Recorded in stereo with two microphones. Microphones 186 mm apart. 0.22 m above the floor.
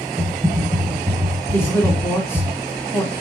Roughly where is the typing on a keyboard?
Centre.